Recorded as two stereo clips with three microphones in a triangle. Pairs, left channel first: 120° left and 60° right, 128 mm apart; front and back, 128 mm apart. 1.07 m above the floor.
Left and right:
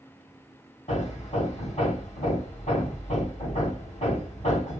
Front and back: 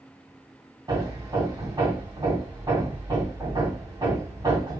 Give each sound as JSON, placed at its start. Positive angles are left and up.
{"t": 0.9, "sound": "hammering", "azimuth_deg": 120, "distance_m": 1.5}